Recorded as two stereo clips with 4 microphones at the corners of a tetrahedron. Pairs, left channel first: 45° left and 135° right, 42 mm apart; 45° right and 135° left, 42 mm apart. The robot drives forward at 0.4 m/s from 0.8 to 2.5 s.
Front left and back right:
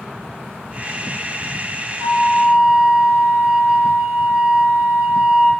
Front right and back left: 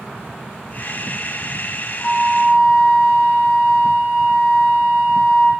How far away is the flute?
About 1.6 m.